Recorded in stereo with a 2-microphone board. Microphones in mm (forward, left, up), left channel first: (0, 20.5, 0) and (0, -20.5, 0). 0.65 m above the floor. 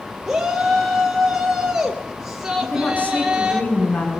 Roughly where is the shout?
Centre.